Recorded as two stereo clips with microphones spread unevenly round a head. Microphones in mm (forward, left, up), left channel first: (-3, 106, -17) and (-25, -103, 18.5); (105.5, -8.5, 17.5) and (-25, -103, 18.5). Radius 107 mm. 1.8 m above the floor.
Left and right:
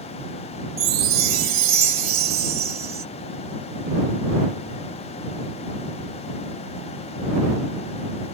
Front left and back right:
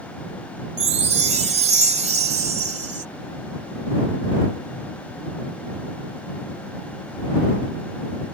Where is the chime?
110° right.